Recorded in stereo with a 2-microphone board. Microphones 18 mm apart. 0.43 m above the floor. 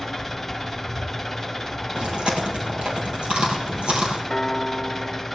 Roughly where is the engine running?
Centre.